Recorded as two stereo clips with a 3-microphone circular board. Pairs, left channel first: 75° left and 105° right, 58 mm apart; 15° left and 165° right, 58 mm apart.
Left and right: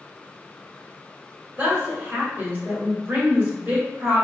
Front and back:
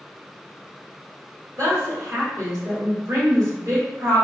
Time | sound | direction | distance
1.6 | a woman speaking | 160° right | 1.8 m